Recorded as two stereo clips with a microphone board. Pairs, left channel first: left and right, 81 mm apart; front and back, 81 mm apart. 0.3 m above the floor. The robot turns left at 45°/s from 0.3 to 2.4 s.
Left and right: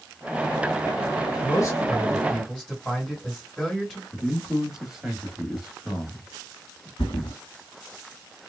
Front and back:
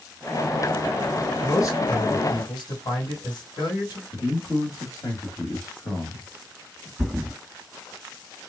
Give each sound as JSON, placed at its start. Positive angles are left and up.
{"t": 1.4, "sound": "a man speaking", "azimuth_deg": 45, "distance_m": 2.5}
{"t": 4.1, "sound": "a man speaking", "azimuth_deg": -5, "distance_m": 1.4}
{"t": 7.0, "sound": "a thud", "azimuth_deg": 90, "distance_m": 0.9}